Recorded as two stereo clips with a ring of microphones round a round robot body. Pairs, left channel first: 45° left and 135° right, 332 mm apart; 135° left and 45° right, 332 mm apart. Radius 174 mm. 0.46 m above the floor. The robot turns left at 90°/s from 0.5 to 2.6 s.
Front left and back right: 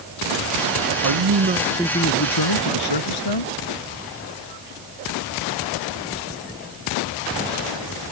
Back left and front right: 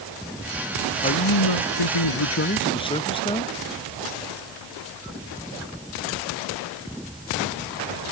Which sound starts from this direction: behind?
A man speaking, at 1.0 s.